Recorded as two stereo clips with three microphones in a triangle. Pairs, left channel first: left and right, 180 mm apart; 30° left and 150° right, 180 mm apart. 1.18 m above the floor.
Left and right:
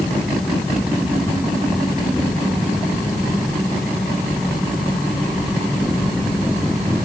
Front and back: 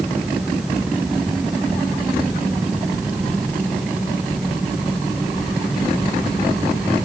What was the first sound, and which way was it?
Only background noise.